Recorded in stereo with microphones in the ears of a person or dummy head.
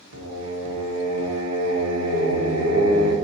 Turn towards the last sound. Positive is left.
turn(degrees=-80)